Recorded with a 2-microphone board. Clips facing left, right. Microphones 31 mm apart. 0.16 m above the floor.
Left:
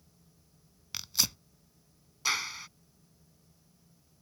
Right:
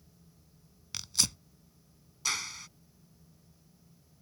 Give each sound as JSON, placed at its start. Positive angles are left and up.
{"t": 0.9, "sound": "tearing paper", "side_deg": 10}
{"t": 2.2, "sound": "a clap", "side_deg": 20}